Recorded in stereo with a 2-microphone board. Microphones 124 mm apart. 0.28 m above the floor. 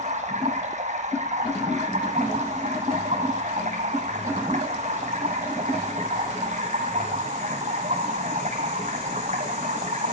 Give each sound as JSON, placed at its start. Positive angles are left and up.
{"t": 0.0, "sound": "running water", "side_deg": -70, "distance_m": 1.9}